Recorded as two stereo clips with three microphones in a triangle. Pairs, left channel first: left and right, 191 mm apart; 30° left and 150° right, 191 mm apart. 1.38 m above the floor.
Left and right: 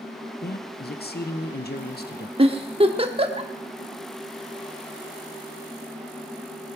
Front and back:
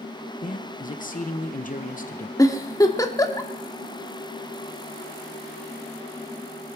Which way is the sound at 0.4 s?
65° left.